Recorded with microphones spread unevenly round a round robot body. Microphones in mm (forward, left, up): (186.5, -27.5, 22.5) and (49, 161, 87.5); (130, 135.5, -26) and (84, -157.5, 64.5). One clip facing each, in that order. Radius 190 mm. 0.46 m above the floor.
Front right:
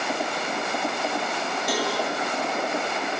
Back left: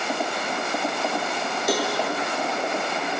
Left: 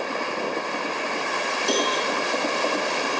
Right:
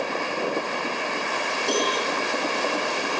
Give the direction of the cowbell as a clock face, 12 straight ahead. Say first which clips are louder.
Back left 3 dB, even; 9 o'clock.